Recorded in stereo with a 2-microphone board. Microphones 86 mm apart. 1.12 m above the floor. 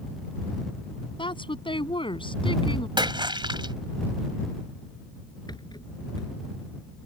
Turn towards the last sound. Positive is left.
turn(degrees=55)  # may be behind; listen again after turning